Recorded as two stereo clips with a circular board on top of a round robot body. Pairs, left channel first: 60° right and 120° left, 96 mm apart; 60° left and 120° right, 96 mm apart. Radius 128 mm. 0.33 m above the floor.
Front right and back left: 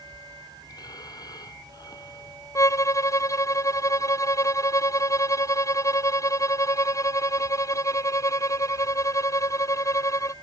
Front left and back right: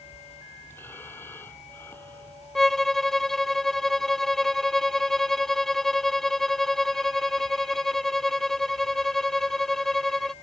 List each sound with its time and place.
0.7 s breathing: 10° right
2.5 s a violin: 25° right